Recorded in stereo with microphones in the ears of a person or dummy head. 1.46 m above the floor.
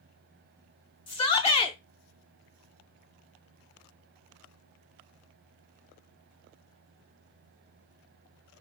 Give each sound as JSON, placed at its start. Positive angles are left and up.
{"t": 1.1, "sound": "a shout", "side_deg": 30, "distance_m": 0.6}